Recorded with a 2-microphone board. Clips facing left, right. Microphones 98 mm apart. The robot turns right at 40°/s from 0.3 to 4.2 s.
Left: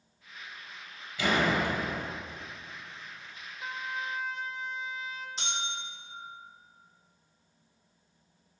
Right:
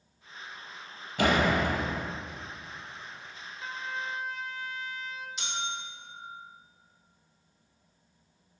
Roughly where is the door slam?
Right.